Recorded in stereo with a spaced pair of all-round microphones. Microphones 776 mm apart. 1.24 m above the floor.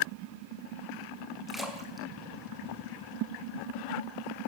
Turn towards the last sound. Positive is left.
turn(degrees=0)  # may be behind; listen again after turning